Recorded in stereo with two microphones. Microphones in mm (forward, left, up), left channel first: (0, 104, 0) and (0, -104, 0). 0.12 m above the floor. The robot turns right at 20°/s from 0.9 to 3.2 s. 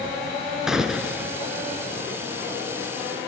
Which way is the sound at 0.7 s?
5° right (ahead or behind).